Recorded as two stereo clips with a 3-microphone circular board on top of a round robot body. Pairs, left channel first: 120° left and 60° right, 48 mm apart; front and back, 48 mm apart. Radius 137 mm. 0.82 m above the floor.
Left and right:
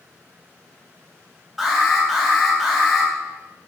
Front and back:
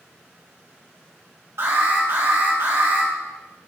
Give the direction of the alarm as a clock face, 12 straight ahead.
5 o'clock.